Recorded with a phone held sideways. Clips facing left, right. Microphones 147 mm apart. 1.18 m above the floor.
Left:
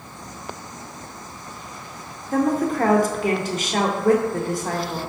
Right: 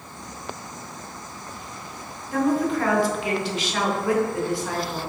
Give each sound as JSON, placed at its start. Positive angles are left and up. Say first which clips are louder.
{"t": 2.3, "sound": "a woman speaking", "louder": "left 1 dB", "side_deg": 45, "distance_m": 0.6}